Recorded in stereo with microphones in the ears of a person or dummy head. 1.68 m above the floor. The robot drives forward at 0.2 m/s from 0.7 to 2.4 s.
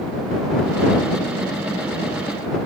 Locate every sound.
Only background noise.